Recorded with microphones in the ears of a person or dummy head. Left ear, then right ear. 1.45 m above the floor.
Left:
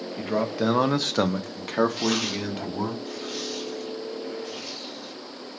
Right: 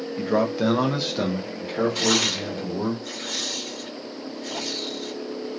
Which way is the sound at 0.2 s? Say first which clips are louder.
Right 3 dB; 5° right (ahead or behind).